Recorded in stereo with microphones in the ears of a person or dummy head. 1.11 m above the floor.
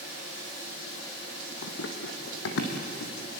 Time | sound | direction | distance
1.6 | running footsteps | 50° left (ahead or behind) | 2.5 m